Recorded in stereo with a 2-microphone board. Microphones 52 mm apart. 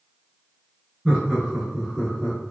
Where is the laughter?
15° right (ahead or behind), 1.4 m; by 2.5 s 15° left (ahead or behind), 1.2 m.